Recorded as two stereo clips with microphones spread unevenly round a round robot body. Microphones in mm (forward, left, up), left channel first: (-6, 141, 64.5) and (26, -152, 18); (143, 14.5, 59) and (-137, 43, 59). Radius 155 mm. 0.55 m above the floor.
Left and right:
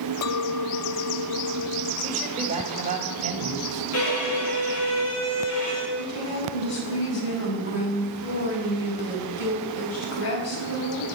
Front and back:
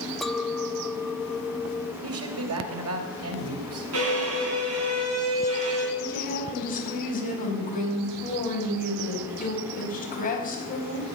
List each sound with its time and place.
0.2 s a clink: 85° left, 0.7 m
2.0 s a man speaking: 150° right, 3 m
3.9 s a violin: 140° left, 5 m
6.0 s a woman speaking: 55° left, 4.5 m